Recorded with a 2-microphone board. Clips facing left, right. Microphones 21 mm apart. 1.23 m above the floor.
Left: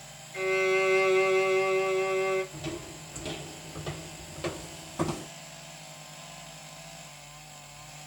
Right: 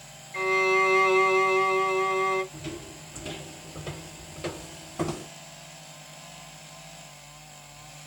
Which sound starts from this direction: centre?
A violin, at 0.3 s.